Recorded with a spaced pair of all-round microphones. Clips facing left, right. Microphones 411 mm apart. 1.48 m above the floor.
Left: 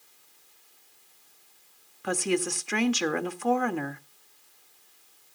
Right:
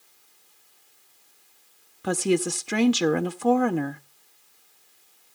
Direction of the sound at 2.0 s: 55° right (ahead or behind).